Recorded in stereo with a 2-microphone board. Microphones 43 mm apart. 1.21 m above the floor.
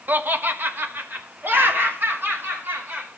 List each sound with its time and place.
0.1 s laughter: 45° right (ahead or behind), 1.0 m; by 3.1 s 50° right (ahead or behind), 5.5 m